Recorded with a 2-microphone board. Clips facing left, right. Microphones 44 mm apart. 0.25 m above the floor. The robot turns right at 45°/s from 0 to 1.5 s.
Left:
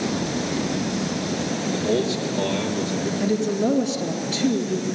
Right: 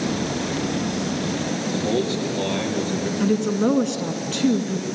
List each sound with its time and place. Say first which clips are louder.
1.7 s a man speaking: even; 25° right (ahead or behind), 5 m
3.2 s a woman speaking: right 2 dB; 45° right (ahead or behind), 2.5 m